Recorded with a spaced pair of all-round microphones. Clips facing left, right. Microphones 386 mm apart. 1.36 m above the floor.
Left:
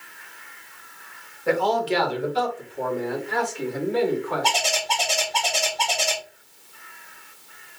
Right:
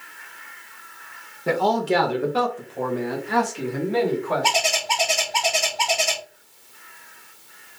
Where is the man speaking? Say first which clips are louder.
Right 1 dB; 45° right (ahead or behind), 1.1 m; by 4.5 s 80° right, 2.5 m.